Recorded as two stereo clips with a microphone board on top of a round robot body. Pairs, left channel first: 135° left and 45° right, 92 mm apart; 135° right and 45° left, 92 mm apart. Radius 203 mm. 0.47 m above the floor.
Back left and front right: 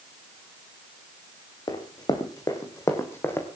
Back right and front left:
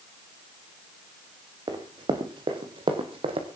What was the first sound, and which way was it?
Running footsteps, 90° left.